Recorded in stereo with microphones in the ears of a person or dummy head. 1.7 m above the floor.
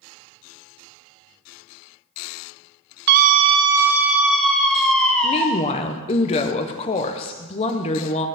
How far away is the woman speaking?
About 1.0 m.